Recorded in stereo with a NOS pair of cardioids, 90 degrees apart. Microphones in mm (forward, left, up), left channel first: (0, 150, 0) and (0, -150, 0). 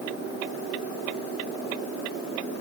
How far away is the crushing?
No crushing in this recording.